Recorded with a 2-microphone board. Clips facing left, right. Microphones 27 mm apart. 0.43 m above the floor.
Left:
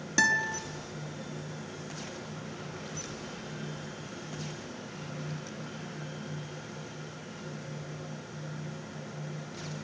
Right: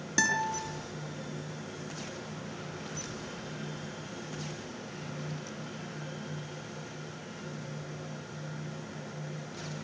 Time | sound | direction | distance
0.2 | a guitar | centre (ahead or behind) | 6.5 m